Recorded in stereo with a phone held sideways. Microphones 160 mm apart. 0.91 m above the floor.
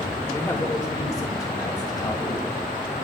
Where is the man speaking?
15° left (ahead or behind), 2.5 m; by 2.5 s 30° left (ahead or behind), 3.5 m.